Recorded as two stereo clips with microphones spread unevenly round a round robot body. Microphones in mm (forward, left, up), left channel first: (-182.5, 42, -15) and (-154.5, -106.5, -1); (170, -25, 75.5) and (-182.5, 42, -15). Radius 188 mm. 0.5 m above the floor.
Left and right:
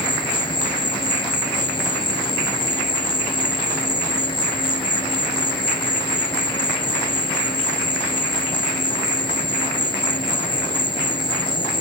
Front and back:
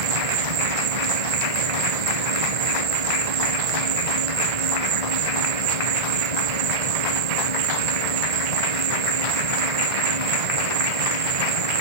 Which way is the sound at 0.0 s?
160° left.